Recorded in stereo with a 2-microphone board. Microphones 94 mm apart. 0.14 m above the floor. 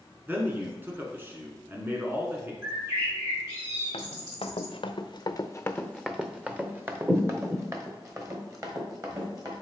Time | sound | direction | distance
0.3 | a man speaking | 20° right (ahead or behind) | 1.4 m
2.6 | a bird | 35° right (ahead or behind) | 2.5 m
3.9 | running footsteps | 85° left | 1.1 m